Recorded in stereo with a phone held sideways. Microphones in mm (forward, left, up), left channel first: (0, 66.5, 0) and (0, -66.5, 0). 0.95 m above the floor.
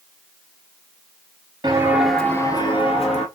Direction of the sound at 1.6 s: 30° right (ahead or behind).